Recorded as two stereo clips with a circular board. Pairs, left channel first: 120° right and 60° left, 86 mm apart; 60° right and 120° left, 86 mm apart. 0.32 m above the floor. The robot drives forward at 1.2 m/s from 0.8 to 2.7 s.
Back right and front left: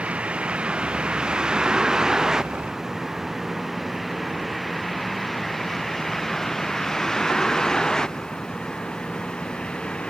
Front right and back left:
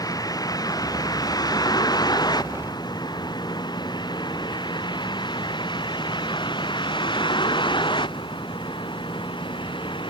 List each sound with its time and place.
0.0 s a vehicle: 15° right; by 10.1 s 40° right